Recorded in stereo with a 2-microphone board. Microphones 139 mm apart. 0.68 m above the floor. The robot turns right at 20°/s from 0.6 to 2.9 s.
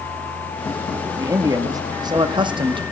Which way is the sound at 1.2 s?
150° right.